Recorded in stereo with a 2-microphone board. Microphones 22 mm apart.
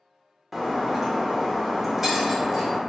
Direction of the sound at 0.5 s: 10° right (ahead or behind).